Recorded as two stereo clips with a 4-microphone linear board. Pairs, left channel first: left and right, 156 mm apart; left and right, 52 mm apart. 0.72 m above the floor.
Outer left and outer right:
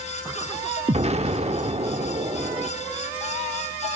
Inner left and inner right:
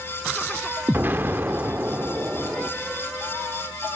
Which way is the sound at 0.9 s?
40° right (ahead or behind).